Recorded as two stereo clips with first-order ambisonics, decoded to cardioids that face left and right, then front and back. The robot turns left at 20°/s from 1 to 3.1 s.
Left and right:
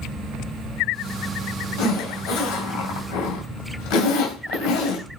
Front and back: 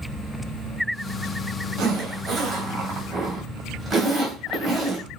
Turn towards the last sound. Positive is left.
turn(degrees=105)